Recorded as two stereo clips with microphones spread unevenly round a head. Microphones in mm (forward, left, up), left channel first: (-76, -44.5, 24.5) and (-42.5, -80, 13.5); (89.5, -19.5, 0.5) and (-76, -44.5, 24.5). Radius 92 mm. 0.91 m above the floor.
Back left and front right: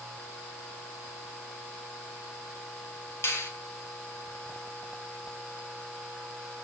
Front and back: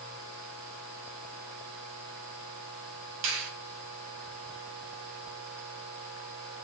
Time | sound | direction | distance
3.2 | a finger snap | 160° left | 4 m